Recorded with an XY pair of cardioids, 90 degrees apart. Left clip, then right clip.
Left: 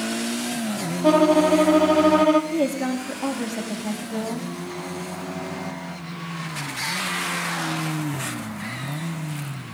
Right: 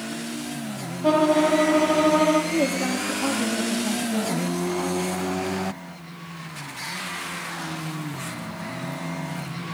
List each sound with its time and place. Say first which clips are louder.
1.0 s a violin: left 2 dB; 30° left, 1.2 m
2.5 s a woman speaking: even; 20° left, 2.5 m